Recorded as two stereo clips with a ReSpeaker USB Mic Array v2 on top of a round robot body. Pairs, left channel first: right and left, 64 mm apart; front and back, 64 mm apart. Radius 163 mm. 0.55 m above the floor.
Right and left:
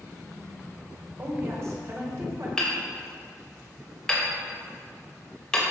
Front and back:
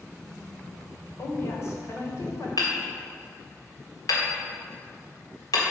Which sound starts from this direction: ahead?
Hammering, at 2.6 s.